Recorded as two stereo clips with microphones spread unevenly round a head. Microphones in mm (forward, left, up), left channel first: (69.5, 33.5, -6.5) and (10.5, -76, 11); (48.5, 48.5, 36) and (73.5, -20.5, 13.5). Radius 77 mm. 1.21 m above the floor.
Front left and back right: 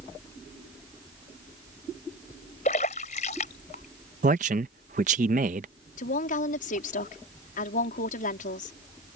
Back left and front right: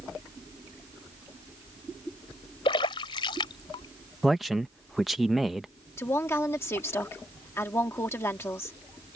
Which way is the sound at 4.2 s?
160° right.